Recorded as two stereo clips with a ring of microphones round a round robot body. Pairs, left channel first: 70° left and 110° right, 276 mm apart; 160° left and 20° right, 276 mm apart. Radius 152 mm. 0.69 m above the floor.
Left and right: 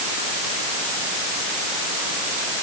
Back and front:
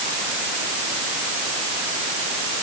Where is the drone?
I don't hear a drone.